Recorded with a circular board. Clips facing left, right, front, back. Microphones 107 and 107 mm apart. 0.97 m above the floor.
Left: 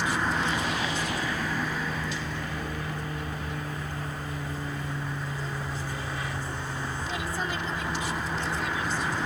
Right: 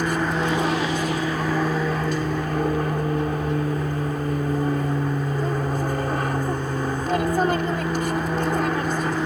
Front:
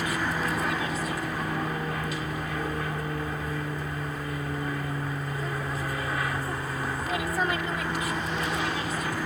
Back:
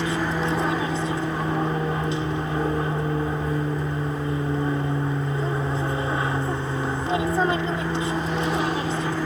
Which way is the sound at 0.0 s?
120° right.